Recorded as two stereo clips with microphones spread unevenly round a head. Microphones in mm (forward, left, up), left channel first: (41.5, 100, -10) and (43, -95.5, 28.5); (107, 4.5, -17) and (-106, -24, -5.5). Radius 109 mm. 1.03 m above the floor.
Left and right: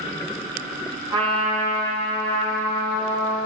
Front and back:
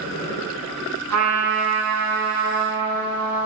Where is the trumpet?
160° right, 9 m.